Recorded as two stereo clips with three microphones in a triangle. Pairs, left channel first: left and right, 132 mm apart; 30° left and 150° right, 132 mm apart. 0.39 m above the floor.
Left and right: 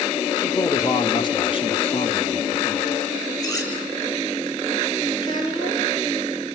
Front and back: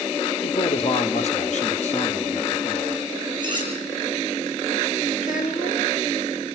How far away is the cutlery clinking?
About 5.5 m.